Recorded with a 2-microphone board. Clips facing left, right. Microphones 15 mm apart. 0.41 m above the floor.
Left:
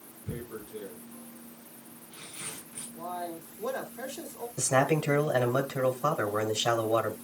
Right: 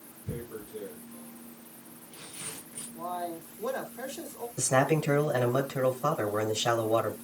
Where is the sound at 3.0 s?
15° right (ahead or behind), 1.5 m.